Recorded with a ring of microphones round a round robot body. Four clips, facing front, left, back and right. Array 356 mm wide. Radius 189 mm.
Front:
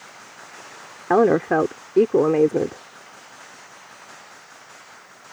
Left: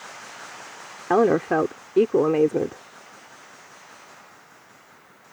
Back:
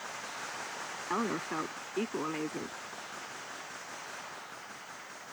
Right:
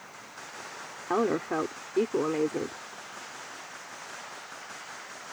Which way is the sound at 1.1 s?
30° left.